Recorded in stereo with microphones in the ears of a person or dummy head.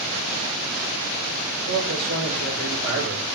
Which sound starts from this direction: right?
A man speaking, at 1.7 s.